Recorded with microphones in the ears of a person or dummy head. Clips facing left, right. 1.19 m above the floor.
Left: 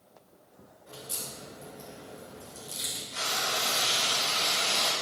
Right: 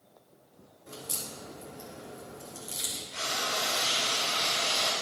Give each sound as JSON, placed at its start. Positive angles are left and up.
{"t": 0.9, "sound": "a crack", "side_deg": -55, "distance_m": 3.0}
{"t": 3.1, "sound": "frying", "side_deg": -5, "distance_m": 5.0}